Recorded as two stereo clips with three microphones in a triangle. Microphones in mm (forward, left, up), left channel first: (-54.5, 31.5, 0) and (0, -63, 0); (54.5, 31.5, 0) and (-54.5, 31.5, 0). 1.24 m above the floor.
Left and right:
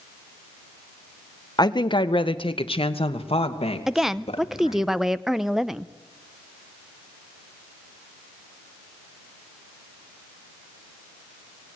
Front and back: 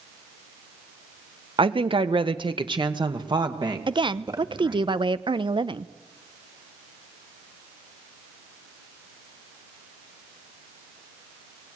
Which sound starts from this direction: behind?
A woman speaking, at 1.6 s.